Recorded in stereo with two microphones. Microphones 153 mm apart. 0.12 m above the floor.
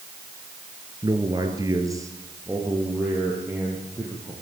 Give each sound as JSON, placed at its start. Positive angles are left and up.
{"t": 1.0, "sound": "a man speaking", "side_deg": -30, "distance_m": 2.0}